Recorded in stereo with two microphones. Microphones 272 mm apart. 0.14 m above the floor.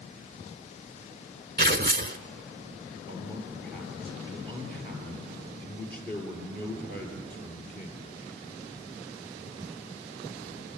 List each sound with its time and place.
1.6 s tearing paper: 35° right (ahead or behind), 0.6 m
3.1 s a man speaking: 35° left (ahead or behind), 3.5 m